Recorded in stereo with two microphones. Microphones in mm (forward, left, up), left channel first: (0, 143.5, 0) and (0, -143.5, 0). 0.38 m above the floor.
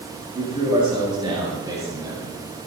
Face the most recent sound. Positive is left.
turn(degrees=-10)  # may be behind; listen again after turning